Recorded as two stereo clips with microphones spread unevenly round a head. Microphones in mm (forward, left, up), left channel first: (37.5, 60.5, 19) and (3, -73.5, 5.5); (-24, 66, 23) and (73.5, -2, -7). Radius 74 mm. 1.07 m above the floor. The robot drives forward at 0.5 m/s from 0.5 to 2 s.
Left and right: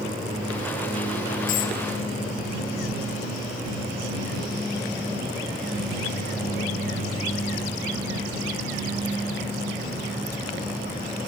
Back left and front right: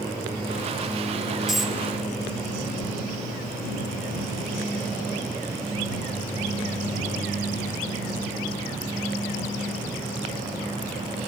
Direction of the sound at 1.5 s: 55° left.